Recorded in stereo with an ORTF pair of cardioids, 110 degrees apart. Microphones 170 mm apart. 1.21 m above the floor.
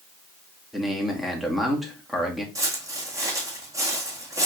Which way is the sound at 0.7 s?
Straight ahead.